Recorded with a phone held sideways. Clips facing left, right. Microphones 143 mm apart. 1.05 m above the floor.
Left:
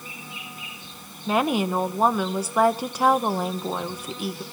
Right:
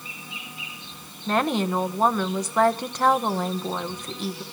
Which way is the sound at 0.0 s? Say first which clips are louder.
Left 1 dB; 50° left (ahead or behind).